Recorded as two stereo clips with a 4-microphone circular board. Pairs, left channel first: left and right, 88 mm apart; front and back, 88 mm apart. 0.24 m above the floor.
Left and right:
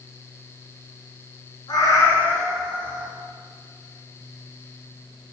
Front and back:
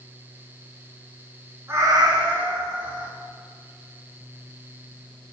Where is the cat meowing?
120° left, 1.2 m; by 3.1 s 155° right, 1.9 m.